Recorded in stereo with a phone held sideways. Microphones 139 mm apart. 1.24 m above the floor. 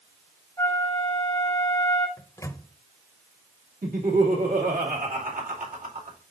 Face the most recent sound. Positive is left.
turn(degrees=-85)